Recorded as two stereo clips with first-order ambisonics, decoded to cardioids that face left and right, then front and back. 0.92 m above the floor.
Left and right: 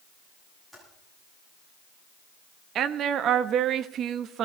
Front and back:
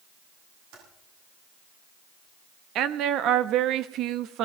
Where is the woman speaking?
140° right, 1.0 m.